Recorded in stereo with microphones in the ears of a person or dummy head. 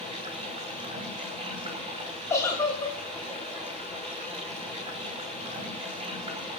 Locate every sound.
0.0 s running water: 30° right (ahead or behind), 5.5 m
2.3 s a giggle: 15° left (ahead or behind), 7.5 m